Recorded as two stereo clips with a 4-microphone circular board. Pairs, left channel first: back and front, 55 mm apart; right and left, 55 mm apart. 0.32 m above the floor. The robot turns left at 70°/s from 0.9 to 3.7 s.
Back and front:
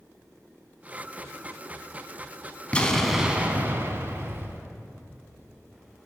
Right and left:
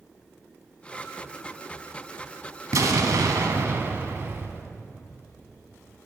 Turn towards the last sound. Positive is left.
turn(degrees=45)